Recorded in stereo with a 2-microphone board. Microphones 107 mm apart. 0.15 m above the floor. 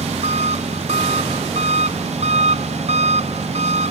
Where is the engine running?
75° right (ahead or behind).